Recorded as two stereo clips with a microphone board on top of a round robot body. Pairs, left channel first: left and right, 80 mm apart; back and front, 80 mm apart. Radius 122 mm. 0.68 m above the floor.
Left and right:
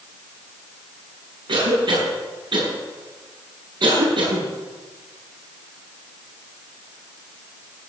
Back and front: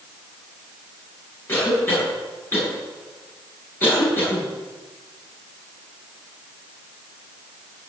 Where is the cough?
115° right, 7.5 m.